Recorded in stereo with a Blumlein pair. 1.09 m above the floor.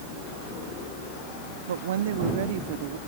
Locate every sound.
1.7 s a woman speaking: 65° right; by 3.0 s 45° right